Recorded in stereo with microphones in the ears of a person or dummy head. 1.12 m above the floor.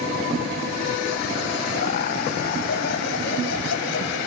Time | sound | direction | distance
1.7 | laughter | 50° left (ahead or behind) | ?